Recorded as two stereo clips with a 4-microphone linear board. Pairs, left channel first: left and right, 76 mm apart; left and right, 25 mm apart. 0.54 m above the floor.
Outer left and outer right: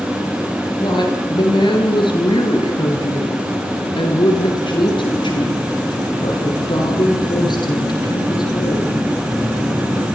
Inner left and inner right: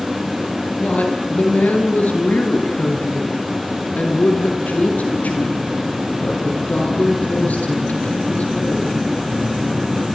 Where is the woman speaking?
70° left (ahead or behind), 9.5 m; by 9.0 s 60° left (ahead or behind), 10.5 m.